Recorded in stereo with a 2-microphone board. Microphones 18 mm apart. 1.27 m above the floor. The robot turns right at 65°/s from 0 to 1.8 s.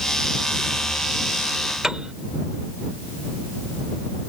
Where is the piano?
40° right (ahead or behind).